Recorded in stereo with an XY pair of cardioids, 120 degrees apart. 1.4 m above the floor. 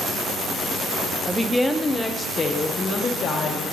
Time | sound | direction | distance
1.3 | a woman speaking | 15° right | 0.6 m